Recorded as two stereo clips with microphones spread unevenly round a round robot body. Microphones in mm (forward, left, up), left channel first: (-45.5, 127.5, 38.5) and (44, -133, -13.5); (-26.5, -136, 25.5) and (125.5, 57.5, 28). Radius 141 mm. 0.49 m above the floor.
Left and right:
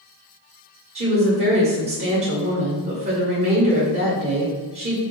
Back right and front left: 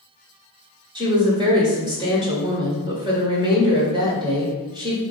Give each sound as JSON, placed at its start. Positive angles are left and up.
{"t": 0.9, "sound": "a woman speaking", "azimuth_deg": -15, "distance_m": 1.7}